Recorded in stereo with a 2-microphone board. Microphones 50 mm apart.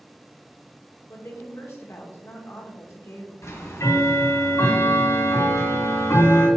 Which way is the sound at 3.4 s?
65° left (ahead or behind).